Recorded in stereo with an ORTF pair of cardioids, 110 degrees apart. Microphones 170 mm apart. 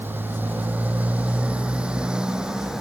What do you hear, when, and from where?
0.0 s a motorcycle: 10° right; by 2.8 s 5° right